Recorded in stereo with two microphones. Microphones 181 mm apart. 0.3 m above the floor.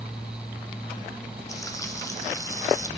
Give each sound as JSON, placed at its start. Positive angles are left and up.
{"t": 1.5, "sound": "frying", "side_deg": 20, "distance_m": 1.9}